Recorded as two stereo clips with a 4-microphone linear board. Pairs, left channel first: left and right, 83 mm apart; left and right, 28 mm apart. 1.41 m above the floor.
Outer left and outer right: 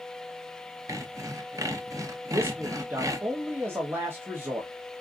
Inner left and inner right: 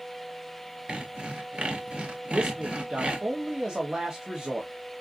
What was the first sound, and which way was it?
Sawing, 45° right (ahead or behind).